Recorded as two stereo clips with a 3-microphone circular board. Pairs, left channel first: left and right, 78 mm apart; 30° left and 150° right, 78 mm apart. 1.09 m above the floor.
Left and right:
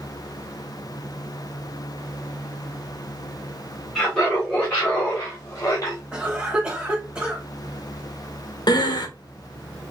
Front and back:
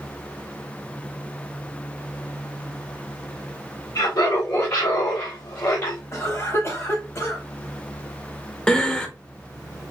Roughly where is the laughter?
Ahead.